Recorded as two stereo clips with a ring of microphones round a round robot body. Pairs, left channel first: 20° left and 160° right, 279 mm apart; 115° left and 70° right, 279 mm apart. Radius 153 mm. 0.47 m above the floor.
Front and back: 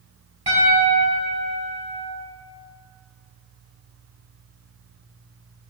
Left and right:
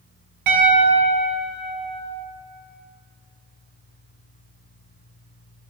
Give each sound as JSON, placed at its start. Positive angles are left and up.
{"t": 0.5, "sound": "a piano", "azimuth_deg": -90, "distance_m": 3.0}